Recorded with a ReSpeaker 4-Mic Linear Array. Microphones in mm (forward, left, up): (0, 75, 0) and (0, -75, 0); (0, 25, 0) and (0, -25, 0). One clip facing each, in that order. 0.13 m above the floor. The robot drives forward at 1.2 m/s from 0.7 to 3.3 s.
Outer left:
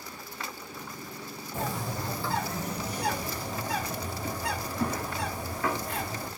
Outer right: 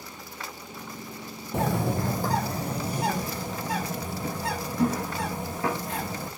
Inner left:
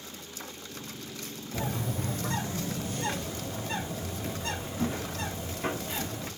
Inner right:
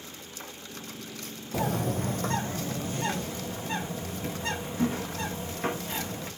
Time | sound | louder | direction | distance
1.5 | a bird | outer right 7 dB, inner right 5 dB | 75° right (ahead or behind) | 1.1 m